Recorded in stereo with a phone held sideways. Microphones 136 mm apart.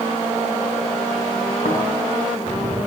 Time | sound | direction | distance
1.6 | snoring | 65° left (ahead or behind) | 7 m